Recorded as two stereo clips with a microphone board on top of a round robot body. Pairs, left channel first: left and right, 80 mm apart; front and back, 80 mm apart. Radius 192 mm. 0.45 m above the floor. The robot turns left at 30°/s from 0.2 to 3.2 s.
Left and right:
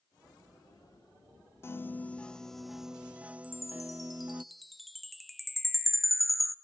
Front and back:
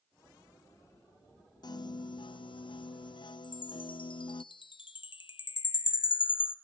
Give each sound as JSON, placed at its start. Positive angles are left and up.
{"t": 1.6, "sound": "a piano", "azimuth_deg": 30, "distance_m": 0.5}
{"t": 3.4, "sound": "a chime", "azimuth_deg": 0, "distance_m": 0.9}